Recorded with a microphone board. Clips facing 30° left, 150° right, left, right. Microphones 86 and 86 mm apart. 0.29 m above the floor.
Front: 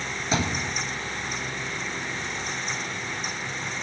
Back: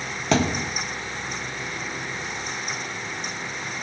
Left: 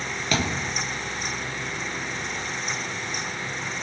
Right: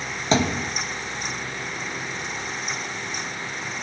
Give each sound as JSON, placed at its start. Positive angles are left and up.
{"t": 0.3, "sound": "a thud", "azimuth_deg": -155, "distance_m": 1.7}